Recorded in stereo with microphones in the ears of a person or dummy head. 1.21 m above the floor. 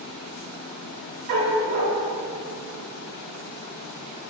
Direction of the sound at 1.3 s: 55° right (ahead or behind).